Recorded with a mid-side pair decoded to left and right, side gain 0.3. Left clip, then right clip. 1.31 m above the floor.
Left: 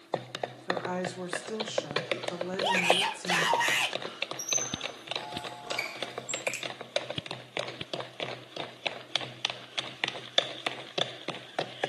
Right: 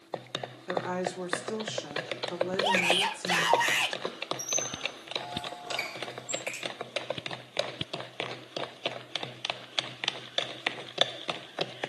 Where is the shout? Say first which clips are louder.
Even; 10° right, 1.4 m.